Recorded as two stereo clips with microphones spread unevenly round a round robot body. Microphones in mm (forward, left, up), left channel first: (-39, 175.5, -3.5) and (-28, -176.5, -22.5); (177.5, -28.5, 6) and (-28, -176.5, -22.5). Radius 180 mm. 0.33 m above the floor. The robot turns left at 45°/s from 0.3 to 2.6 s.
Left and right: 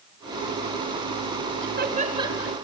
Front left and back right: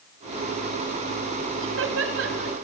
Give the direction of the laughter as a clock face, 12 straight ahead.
5 o'clock.